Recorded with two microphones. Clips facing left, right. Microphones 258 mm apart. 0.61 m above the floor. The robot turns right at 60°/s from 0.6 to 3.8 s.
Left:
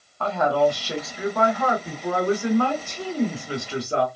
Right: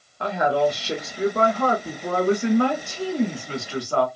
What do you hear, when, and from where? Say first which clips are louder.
0.2 s a woman speaking: left 1 dB; 155° right, 1.0 m; by 4.1 s 40° left, 1.0 m